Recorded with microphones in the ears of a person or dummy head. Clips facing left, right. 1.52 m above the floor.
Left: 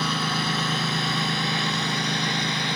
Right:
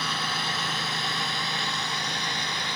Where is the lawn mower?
75° left (ahead or behind); by 2.8 s 60° left (ahead or behind).